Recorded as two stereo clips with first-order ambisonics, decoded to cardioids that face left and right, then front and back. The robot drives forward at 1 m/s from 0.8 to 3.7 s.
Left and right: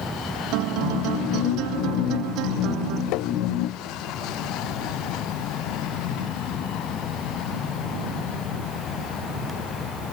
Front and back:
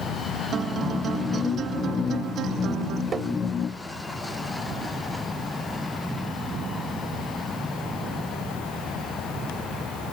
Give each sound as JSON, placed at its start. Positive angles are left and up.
{"t": 0.5, "sound": "a guitar", "azimuth_deg": -115}
{"t": 3.1, "sound": "tapping", "azimuth_deg": 115}